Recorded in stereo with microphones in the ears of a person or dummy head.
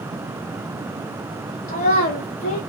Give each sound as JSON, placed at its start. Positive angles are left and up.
{"t": 1.7, "sound": "a child speaking", "side_deg": 40, "distance_m": 0.7}